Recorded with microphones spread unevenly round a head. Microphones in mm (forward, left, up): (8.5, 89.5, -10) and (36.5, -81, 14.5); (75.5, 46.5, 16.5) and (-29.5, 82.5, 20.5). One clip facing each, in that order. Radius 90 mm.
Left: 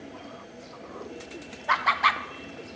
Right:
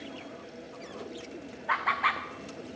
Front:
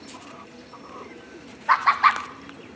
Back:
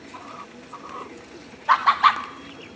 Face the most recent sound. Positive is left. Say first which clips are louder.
# left 5 dB, back 1 dB
turn(degrees=80)